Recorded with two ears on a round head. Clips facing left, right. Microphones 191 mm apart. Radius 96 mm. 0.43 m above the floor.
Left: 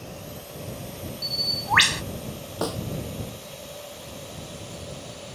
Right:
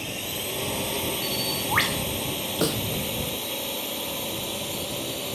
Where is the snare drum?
25° right (ahead or behind).